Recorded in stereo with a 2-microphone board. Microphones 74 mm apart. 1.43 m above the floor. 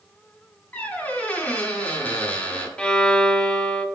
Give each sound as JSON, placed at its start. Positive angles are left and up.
{"t": 0.7, "sound": "a squeak", "side_deg": 25, "distance_m": 2.0}
{"t": 2.8, "sound": "a violin", "side_deg": 15, "distance_m": 0.7}